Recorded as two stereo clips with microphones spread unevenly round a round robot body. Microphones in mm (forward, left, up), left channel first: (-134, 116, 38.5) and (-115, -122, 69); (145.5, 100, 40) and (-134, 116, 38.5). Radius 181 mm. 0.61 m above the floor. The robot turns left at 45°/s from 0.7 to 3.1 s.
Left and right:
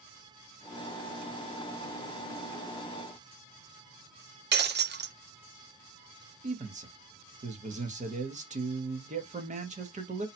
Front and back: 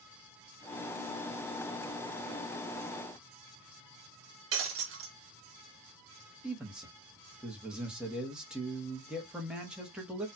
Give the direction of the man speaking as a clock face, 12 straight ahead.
3 o'clock.